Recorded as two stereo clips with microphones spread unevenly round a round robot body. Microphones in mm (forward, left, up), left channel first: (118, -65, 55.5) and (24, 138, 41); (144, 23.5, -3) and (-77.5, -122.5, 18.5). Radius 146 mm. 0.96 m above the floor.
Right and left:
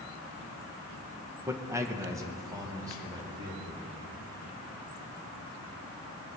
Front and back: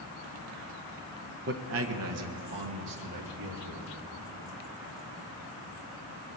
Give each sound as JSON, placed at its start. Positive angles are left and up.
{"t": 1.5, "sound": "a man speaking", "azimuth_deg": 180, "distance_m": 0.8}